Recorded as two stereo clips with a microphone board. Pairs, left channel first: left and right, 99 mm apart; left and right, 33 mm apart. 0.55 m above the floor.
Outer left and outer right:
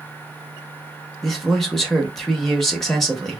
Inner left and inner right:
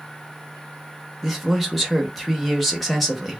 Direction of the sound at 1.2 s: 5° left (ahead or behind).